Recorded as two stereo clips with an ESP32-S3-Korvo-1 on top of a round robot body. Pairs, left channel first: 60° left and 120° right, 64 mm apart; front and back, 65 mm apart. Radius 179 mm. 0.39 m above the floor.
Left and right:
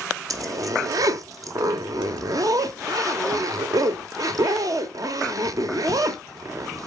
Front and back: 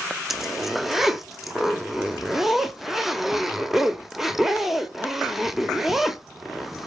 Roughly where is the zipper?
Right.